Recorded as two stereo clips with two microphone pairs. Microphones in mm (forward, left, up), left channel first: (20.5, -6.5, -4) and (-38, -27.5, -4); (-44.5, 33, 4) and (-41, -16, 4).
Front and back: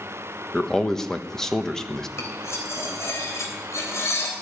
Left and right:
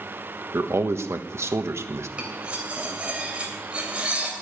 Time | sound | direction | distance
0.5 | a man speaking | 65° right | 1.2 m
2.2 | cutlery clinking | 20° right | 3 m